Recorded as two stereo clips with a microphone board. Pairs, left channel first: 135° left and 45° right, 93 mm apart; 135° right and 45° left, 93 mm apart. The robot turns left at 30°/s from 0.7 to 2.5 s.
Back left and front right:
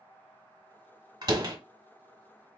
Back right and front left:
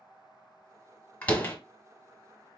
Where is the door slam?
60° right, 1.1 m; by 1.6 s 75° right, 1.1 m.